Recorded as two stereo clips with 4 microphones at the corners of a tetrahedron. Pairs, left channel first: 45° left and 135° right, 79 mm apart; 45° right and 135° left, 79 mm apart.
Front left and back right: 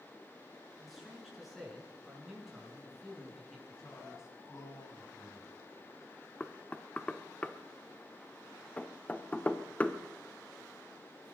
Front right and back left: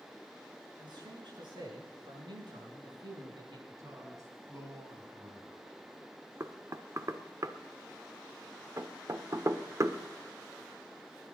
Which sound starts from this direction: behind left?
A man speaking, at 0.8 s.